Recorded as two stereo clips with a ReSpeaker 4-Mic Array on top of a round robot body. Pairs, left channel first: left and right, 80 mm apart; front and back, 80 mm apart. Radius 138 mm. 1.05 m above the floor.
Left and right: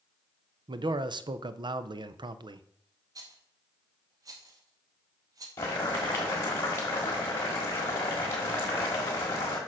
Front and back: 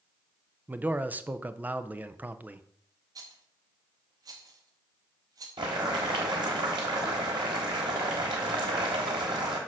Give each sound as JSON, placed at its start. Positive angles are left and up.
{"t": 0.7, "sound": "a man speaking", "azimuth_deg": -110, "distance_m": 0.6}
{"t": 3.1, "sound": "a rattle", "azimuth_deg": -135, "distance_m": 0.8}
{"t": 5.6, "sound": "boiling", "azimuth_deg": 150, "distance_m": 1.3}